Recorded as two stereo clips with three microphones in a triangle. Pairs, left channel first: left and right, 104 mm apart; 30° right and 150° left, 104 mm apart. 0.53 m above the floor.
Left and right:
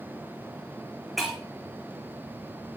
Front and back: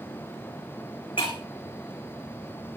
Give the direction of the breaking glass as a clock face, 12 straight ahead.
12 o'clock.